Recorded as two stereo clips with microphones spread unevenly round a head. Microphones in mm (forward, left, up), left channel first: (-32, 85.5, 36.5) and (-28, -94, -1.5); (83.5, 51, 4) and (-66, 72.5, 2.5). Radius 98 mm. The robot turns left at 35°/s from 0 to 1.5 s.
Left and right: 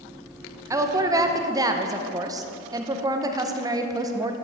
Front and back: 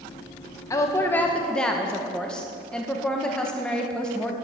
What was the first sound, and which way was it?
A woman speaking, 60° right.